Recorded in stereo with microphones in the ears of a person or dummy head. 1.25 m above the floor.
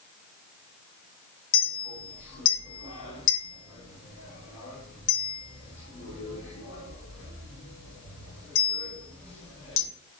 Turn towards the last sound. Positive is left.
turn(degrees=60)  # may be behind; listen again after turning